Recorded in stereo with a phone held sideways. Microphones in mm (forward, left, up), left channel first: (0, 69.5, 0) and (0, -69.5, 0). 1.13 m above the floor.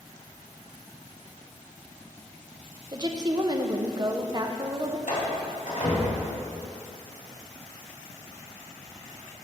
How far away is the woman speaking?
About 0.5 m.